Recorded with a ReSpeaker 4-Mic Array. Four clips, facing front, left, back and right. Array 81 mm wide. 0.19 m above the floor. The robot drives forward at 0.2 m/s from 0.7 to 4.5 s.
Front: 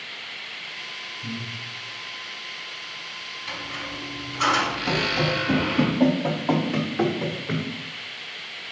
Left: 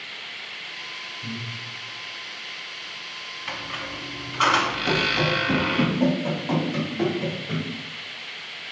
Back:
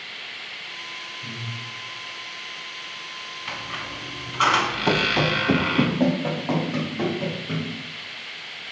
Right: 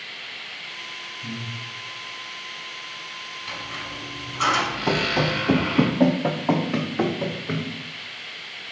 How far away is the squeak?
About 0.6 m.